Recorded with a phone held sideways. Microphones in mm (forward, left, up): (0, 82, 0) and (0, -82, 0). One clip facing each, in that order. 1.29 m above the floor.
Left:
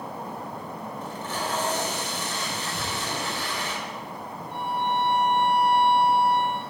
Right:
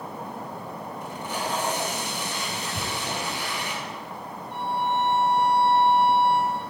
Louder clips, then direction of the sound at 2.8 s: Right 1 dB; 65° right (ahead or behind).